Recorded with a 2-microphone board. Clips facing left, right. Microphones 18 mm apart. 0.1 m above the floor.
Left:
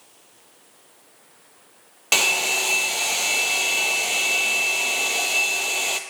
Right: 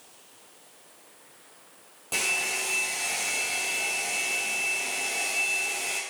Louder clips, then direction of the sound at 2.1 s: Left 8 dB; 65° left (ahead or behind).